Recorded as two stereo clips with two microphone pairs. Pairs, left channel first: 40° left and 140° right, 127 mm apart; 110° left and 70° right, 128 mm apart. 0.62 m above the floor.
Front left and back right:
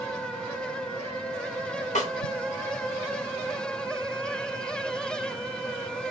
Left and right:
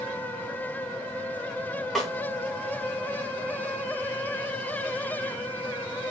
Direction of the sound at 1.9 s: 25° left.